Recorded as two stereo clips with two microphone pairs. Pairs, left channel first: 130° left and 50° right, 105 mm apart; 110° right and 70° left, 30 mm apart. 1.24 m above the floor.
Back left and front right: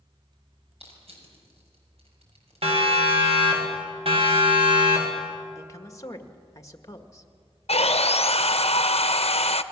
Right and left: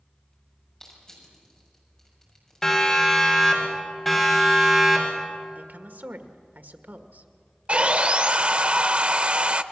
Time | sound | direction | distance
0.8 | crushing | 40° right | 6.5 m
2.6 | a siren | 40° right | 6 m
5.5 | a woman speaking | 70° left | 1.7 m
7.7 | sawing | 120° left | 0.7 m